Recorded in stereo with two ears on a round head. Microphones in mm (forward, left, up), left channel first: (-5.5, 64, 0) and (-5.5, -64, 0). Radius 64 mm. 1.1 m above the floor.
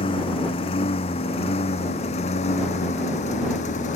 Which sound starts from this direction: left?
A lawn mower, at 0.0 s.